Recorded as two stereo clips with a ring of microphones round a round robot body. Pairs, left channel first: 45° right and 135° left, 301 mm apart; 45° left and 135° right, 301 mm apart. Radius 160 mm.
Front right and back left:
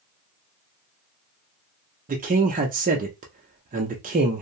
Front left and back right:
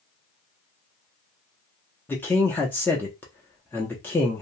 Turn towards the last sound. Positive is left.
turn(degrees=120)